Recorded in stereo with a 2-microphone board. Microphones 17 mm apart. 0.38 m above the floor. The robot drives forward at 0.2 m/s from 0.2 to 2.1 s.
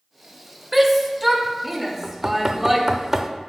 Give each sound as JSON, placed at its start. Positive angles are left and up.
{"t": 0.7, "sound": "a shout", "side_deg": -5, "distance_m": 1.0}
{"t": 2.0, "sound": "knocking", "side_deg": -25, "distance_m": 0.5}